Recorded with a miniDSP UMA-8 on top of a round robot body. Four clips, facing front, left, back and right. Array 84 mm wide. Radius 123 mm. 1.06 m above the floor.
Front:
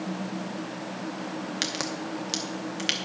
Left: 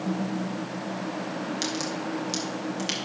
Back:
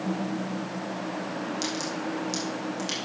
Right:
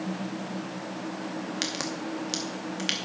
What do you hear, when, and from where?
1.6 s a crack: 30° right, 0.8 m